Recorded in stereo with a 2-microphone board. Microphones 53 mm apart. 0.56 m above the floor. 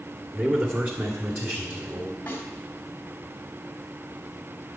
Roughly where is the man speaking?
Right.